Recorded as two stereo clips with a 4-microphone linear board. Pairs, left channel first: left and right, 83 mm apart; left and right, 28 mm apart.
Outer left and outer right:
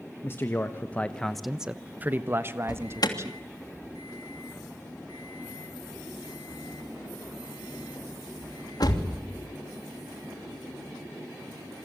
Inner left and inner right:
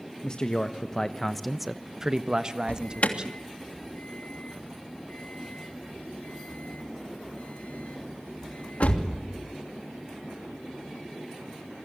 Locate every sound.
0.2 s a man speaking: 30° left (ahead or behind), 1.5 m; by 3.4 s 35° right (ahead or behind), 2 m
2.7 s an alarm: 60° left (ahead or behind), 3 m